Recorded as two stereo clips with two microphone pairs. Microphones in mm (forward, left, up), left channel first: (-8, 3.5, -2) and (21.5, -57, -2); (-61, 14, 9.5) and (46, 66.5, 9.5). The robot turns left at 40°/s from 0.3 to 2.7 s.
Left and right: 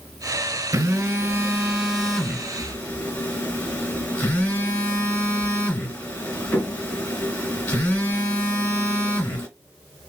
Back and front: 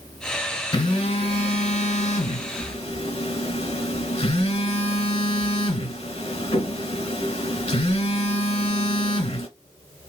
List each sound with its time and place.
0.7 s a phone buzzing: 100° right, 2 m; by 9.5 s straight behind, 2 m